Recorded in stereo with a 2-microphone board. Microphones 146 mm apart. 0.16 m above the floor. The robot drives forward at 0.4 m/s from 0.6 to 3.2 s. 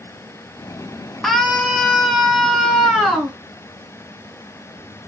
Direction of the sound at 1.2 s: Centre (ahead or behind).